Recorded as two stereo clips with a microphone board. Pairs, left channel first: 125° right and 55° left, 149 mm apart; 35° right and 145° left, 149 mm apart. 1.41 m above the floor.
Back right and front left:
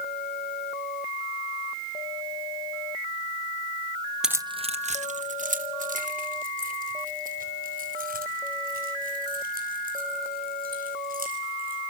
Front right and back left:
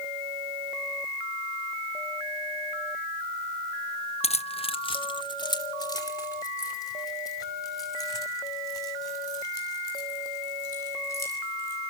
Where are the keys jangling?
30° right, 0.6 m; by 11.8 s 35° left, 11.5 m.